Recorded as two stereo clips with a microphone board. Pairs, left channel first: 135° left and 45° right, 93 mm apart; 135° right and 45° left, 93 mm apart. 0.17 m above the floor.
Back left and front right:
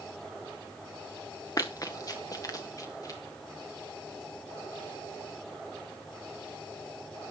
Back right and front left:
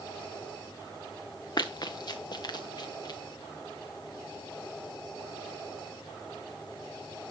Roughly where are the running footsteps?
Behind.